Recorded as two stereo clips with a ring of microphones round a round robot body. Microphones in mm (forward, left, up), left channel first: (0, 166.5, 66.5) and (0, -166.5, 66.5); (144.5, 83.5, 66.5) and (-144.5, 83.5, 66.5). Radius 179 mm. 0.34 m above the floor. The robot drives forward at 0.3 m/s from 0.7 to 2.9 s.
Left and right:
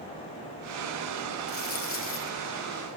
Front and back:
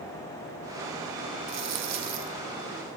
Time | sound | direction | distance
1.5 | a dropped coin | 145° left | 4 m